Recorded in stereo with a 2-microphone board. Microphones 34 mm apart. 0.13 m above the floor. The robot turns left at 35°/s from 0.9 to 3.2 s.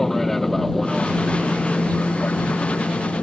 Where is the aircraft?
10° left (ahead or behind); by 3.2 s 75° left (ahead or behind).